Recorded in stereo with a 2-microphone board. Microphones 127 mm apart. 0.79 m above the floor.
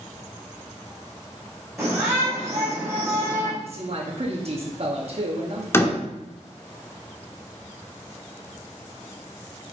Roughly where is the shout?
Centre.